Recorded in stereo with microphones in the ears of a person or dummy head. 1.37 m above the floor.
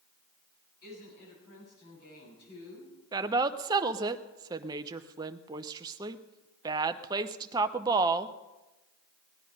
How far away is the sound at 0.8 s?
About 9 m.